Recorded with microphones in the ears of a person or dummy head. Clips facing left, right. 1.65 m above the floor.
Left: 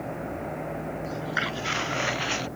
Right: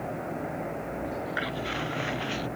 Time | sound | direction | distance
1.0 | footsteps | 45° left (ahead or behind) | ?